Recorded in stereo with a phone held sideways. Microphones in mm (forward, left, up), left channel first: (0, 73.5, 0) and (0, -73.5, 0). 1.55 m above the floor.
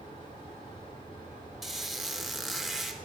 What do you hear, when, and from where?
0.0 s a fan: 35° left (ahead or behind), 3.5 m
1.6 s a squeak: centre (ahead or behind), 0.8 m